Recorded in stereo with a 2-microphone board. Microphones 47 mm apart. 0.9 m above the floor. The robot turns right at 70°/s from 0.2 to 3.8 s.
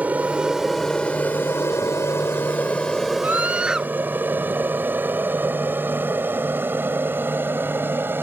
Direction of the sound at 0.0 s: 35° right (ahead or behind).